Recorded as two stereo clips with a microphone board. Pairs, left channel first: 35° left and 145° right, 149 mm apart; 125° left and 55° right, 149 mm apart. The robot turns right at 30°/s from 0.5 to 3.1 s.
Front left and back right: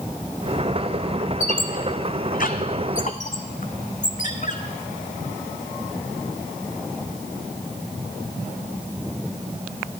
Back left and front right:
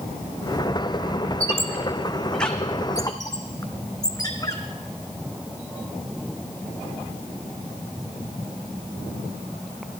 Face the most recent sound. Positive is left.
turn(degrees=60)